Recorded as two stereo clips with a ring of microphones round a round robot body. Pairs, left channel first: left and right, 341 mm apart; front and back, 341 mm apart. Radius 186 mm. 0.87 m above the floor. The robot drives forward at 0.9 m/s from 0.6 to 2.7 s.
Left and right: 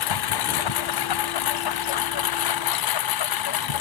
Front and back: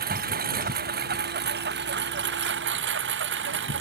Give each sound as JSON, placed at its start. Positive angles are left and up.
{"t": 0.0, "sound": "a lawn mower", "azimuth_deg": 110}